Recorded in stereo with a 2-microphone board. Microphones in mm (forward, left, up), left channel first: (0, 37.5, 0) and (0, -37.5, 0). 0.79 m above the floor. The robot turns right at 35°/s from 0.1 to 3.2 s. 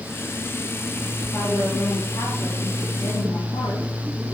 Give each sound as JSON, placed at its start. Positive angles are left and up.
{"t": 1.2, "sound": "a woman speaking", "azimuth_deg": 25, "distance_m": 5.0}